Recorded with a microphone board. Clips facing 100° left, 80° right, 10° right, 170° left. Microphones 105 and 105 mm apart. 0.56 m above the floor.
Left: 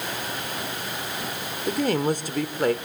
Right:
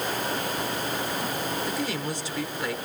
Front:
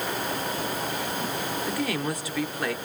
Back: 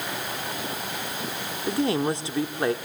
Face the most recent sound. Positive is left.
turn(degrees=115)